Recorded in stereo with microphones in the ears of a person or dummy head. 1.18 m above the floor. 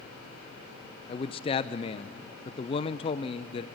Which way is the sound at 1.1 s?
30° left (ahead or behind).